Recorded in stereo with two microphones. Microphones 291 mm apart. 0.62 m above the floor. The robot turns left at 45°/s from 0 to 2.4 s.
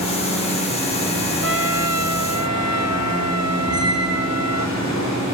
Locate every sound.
1.4 s a trumpet: 50° right, 0.9 m; by 4.7 s 95° right, 0.9 m
3.7 s a squeak: 70° left (ahead or behind), 4.5 m